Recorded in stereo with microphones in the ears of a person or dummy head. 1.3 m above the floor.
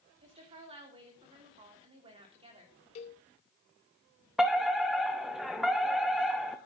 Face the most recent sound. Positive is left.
turn(degrees=-5)  # may be behind; listen again after turning